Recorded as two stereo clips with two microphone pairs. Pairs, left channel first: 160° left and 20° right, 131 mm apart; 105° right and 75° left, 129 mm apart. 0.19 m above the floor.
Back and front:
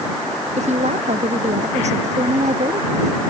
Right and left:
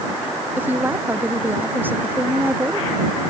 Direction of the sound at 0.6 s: Straight ahead.